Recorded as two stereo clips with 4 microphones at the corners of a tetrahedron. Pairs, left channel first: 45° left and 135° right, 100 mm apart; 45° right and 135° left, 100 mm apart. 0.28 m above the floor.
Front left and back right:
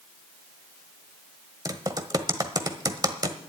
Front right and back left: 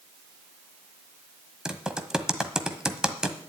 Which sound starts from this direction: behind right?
Typing on a keyboard, at 1.6 s.